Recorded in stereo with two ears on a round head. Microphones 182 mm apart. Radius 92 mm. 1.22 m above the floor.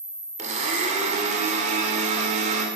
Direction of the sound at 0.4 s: 35° right (ahead or behind).